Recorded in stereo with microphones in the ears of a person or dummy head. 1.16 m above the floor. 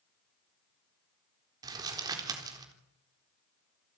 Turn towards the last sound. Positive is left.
turn(degrees=-20)  # may be behind; listen again after turning